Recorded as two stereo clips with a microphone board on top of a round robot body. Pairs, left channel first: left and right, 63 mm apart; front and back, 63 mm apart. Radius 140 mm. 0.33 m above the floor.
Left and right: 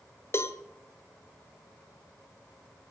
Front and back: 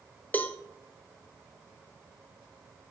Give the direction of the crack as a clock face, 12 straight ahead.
No crack in this recording.